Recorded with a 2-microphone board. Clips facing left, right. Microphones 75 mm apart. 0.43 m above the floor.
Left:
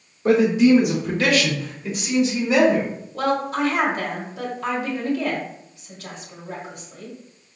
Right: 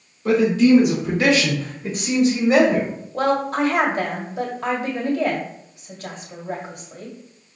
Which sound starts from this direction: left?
A man speaking, at 0.2 s.